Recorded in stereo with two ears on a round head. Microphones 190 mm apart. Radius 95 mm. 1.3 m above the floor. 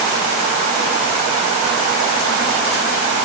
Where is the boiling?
I don't hear boiling.